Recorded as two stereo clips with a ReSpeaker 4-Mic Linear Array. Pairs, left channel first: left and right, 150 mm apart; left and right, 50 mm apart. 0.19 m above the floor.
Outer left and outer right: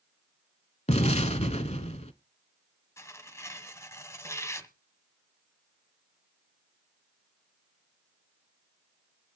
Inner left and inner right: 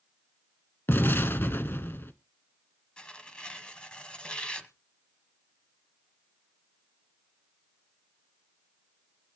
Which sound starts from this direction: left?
An explosion, at 0.9 s.